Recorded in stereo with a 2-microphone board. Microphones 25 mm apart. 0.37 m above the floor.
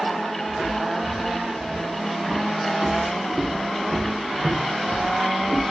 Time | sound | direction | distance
0.5 | footsteps | 65° right (ahead or behind) | 1.6 m